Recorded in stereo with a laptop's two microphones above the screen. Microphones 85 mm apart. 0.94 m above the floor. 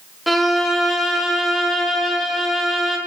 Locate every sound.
0.3 s a violin: centre (ahead or behind), 1.4 m